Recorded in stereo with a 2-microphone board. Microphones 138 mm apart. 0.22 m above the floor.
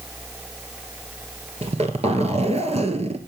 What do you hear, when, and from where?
1.6 s a zipper: 50° right (ahead or behind), 1.3 m